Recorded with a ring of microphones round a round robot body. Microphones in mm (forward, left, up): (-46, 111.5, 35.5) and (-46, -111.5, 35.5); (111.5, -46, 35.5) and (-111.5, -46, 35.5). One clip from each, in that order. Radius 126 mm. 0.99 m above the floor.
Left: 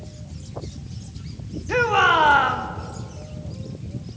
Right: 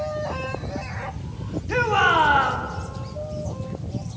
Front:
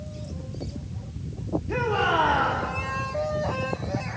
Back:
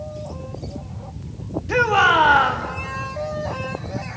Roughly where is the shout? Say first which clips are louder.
Left 2 dB, back 9 dB; behind.